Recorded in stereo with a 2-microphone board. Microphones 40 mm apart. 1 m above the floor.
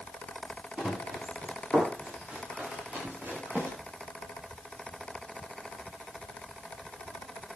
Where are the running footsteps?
25° right (ahead or behind), 9 m; by 3.7 s 45° right (ahead or behind), 8.5 m.